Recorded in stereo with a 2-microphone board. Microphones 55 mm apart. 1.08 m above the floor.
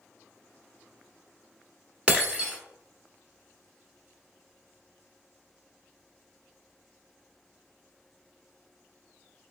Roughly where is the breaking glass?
Right.